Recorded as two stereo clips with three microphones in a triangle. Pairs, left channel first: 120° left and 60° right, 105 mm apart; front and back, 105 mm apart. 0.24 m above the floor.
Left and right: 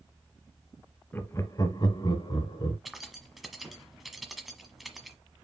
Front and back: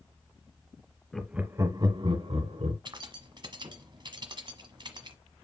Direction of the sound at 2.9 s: 150° right.